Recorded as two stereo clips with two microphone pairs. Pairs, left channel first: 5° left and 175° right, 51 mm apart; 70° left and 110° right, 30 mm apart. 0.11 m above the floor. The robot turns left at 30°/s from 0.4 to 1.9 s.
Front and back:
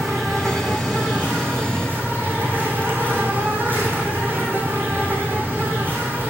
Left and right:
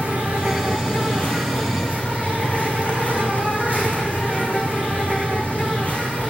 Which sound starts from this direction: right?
An insect, at 0.0 s.